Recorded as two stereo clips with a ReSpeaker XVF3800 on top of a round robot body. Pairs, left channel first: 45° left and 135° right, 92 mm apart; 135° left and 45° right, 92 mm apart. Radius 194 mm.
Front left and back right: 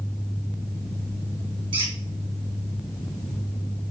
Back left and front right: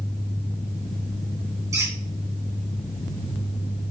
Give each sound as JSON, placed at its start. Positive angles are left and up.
{"t": 1.7, "sound": "a squeak", "azimuth_deg": -100, "distance_m": 3.0}